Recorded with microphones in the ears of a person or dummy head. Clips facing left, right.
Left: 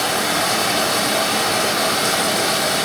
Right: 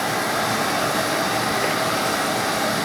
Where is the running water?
50° left (ahead or behind), 3.5 m.